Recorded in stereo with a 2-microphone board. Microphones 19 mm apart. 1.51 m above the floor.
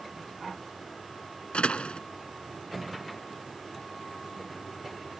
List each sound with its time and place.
1.5 s a door slam: 65° left (ahead or behind)